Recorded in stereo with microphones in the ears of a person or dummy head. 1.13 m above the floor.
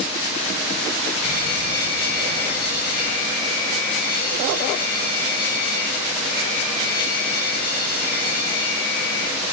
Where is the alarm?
35° left (ahead or behind), 5 m.